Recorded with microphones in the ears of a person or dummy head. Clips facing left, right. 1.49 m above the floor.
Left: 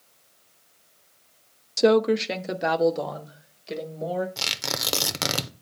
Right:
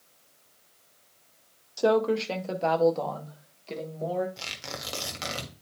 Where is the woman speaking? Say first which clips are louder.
Left 4 dB; 35° left (ahead or behind), 0.5 m; by 4.3 s 20° left (ahead or behind), 2 m.